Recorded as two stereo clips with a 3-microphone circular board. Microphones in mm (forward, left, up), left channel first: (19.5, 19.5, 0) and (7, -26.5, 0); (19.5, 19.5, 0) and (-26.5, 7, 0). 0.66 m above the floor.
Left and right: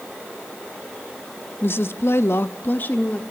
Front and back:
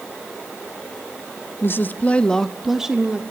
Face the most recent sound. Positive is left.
turn(degrees=130)